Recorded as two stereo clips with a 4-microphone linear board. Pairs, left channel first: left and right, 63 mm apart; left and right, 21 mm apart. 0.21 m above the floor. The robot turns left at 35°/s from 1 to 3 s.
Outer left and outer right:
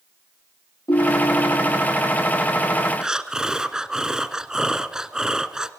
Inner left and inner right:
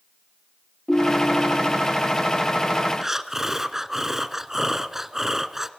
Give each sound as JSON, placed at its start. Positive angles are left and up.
{"t": 0.9, "sound": "a ringtone", "azimuth_deg": 100, "distance_m": 2.0}
{"t": 3.0, "sound": "breathing", "side_deg": -10, "distance_m": 1.3}